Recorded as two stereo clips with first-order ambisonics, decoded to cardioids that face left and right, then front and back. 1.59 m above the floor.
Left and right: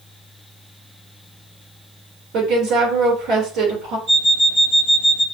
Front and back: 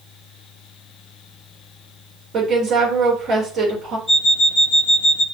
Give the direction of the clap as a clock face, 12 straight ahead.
I don't hear a clap.